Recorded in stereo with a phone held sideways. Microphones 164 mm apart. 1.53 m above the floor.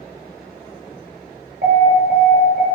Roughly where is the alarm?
Right.